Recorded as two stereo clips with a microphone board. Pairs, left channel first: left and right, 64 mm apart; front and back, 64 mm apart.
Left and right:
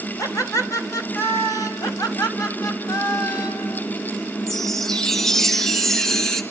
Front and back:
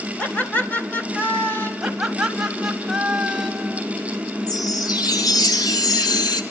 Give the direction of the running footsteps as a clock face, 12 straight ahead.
I don't hear running footsteps.